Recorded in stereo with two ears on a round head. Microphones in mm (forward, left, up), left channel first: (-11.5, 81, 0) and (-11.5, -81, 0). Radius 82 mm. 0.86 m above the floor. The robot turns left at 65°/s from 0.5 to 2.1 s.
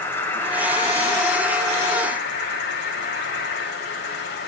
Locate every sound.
0.0 s an insect: 165° left, 7.5 m; by 4.5 s 65° left, 7.5 m